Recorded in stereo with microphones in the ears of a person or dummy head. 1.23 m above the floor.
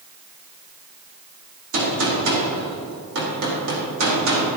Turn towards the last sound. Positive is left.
turn(degrees=-70)  # may be behind; listen again after turning